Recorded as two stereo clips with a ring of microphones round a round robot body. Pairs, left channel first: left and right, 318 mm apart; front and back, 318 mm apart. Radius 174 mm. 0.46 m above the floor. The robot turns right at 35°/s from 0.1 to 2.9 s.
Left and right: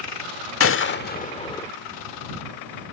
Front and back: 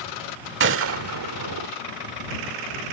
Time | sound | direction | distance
0.6 | a gunshot | 130° left | ?